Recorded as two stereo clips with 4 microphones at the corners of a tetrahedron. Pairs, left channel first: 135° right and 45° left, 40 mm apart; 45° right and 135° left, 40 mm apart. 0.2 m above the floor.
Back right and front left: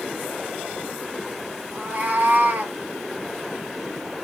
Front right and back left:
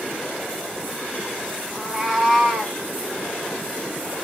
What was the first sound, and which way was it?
A cat meowing, 85° left.